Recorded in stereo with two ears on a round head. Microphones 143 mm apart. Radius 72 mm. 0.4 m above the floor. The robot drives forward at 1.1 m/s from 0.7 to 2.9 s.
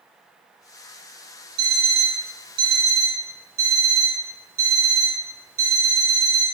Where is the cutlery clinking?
No cutlery clinking in this recording.